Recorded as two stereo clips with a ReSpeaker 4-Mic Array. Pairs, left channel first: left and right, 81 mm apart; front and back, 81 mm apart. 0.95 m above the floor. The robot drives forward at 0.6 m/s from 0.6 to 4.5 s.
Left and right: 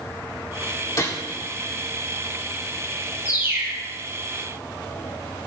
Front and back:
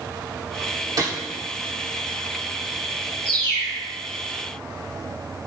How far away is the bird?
About 5 m.